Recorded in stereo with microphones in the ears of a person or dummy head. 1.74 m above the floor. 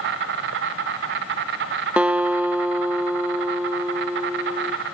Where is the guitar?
10° right (ahead or behind), 0.6 m.